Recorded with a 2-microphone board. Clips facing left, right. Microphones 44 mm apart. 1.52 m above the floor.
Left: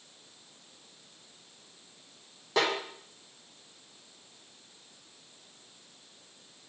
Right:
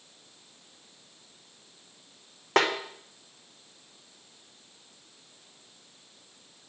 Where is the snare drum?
55° right (ahead or behind), 1.1 m.